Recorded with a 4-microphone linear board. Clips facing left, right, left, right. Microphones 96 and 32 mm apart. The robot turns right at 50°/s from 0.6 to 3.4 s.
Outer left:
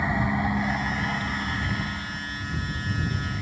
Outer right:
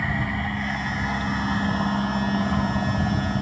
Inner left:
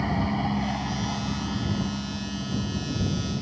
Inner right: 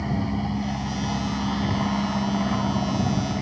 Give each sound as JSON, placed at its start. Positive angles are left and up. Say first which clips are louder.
{"t": 0.0, "sound": "an aircraft", "louder": "outer left 2 dB, even", "azimuth_deg": 165}